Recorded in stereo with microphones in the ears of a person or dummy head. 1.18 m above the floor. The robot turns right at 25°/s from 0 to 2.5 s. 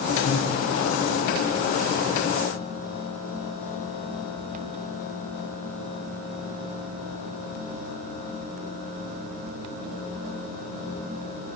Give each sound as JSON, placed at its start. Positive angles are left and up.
{"t": 0.2, "sound": "breathing", "side_deg": 30, "distance_m": 2.5}